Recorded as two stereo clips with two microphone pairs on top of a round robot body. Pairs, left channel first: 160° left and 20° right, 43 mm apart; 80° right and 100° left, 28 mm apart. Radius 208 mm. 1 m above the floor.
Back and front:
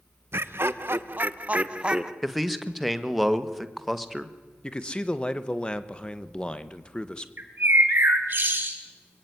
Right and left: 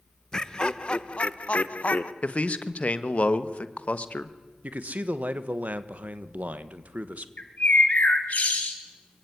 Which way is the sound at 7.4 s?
60° right.